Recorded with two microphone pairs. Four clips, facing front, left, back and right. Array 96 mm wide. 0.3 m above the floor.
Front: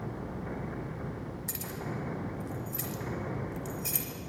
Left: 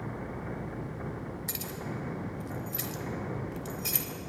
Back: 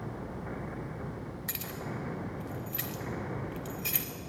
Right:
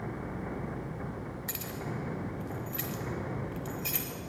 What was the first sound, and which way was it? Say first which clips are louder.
Keys jangling: even, front 1 dB; 160° right.